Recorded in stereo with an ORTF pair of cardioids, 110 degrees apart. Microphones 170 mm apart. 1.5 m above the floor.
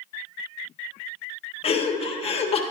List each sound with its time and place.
1.6 s laughter: 35° left, 1.2 m